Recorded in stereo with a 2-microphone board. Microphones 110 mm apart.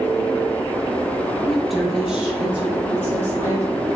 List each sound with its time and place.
1.4 s a woman speaking: centre (ahead or behind), 4 m; by 4.0 s 25° right (ahead or behind), 5 m